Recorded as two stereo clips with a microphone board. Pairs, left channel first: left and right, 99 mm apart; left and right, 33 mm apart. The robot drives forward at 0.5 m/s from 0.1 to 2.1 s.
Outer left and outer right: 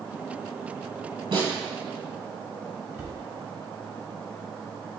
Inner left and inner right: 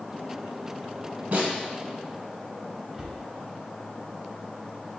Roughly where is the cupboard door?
Right.